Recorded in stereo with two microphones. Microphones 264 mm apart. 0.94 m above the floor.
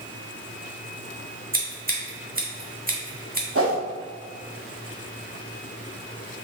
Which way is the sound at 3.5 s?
50° right (ahead or behind).